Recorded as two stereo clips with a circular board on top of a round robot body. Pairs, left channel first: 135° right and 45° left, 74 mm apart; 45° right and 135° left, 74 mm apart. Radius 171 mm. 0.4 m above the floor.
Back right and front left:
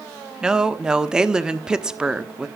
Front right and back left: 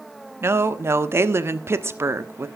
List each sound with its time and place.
0.4 s a woman speaking: 120° left, 1.5 m